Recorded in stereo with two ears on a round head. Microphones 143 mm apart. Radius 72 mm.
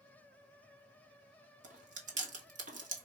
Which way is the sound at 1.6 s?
50° right (ahead or behind).